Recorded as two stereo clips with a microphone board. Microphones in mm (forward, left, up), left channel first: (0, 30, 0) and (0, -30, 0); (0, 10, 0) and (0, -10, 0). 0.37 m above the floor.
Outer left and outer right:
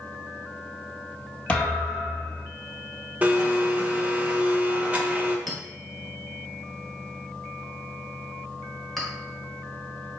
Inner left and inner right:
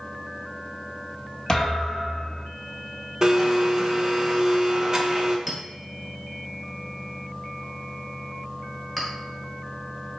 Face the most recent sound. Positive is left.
turn(degrees=0)  # may be behind; listen again after turning